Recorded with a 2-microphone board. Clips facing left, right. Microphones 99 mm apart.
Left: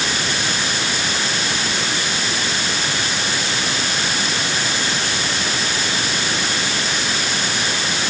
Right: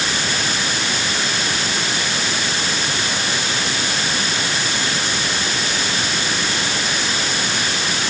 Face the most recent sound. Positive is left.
No sound to turn to.